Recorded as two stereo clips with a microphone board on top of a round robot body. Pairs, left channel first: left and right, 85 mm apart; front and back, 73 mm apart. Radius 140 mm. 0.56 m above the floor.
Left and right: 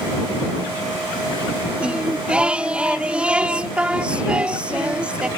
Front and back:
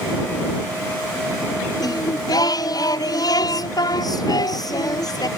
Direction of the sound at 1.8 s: 15° right.